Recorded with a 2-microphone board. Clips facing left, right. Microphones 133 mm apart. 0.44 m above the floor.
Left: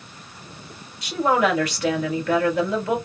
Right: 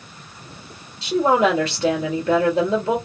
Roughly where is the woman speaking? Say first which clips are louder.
Right 3 dB; right.